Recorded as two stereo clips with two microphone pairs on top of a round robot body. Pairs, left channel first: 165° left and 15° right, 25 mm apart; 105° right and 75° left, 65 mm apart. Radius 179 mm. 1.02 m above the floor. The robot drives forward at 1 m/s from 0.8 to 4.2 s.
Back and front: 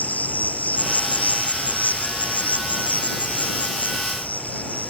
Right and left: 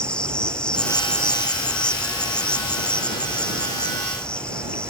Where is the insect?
Straight behind.